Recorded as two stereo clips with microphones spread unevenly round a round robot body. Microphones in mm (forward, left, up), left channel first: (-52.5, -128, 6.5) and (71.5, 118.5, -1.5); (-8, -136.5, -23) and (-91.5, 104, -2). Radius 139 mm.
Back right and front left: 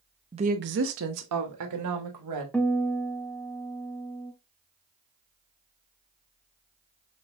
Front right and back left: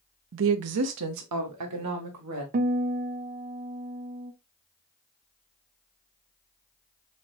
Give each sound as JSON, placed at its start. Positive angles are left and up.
{"t": 0.3, "sound": "a woman speaking", "azimuth_deg": 125, "distance_m": 0.5}
{"t": 2.5, "sound": "a guitar", "azimuth_deg": 160, "distance_m": 0.5}